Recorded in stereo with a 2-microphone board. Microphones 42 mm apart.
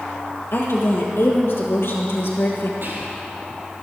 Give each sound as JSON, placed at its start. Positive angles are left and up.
{"t": 0.5, "sound": "a woman speaking", "side_deg": 75, "distance_m": 4.0}
{"t": 2.8, "sound": "whispering", "side_deg": -60, "distance_m": 5.5}